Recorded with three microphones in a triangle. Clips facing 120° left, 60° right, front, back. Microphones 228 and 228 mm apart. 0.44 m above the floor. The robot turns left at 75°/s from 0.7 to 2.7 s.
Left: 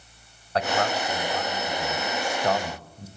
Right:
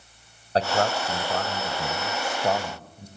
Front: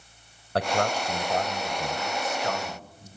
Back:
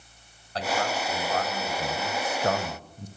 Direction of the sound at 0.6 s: 5° right.